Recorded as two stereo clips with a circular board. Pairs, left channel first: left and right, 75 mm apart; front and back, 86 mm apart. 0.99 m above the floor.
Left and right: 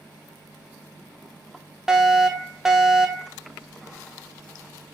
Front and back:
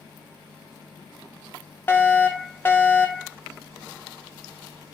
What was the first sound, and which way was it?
A fire alarm, 15° right.